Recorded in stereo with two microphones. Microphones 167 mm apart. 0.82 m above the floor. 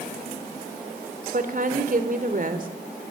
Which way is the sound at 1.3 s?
55° right (ahead or behind).